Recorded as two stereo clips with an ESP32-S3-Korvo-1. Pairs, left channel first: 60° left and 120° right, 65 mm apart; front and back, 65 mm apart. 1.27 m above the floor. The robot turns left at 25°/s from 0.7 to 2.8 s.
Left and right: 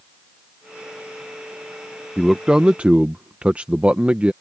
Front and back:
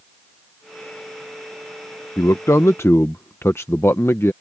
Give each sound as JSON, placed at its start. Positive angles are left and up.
{"t": 2.2, "sound": "a man speaking", "azimuth_deg": -35}